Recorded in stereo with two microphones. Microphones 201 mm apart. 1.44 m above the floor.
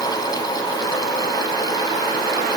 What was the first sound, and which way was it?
Only background noise.